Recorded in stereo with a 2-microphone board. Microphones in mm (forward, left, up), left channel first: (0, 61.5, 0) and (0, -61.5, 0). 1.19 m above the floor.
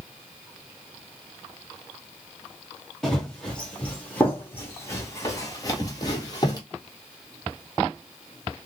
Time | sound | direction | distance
3.0 | running footsteps | 5° left (ahead or behind) | 1.8 m